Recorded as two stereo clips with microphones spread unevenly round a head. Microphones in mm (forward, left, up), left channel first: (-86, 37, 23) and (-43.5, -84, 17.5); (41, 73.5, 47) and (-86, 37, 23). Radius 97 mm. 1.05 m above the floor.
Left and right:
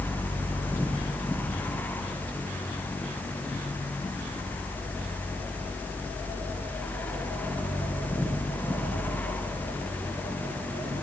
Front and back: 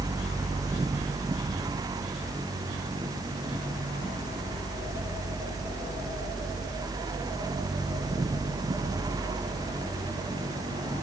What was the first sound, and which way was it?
Only background noise.